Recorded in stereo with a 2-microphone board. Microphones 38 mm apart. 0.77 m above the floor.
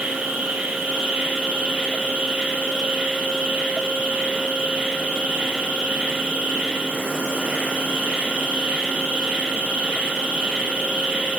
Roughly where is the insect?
Right.